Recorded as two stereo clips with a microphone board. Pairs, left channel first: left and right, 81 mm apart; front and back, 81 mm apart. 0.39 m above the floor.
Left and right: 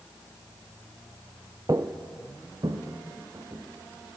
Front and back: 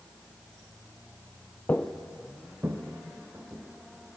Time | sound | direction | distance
1.7 | footsteps | 60° right | 0.5 m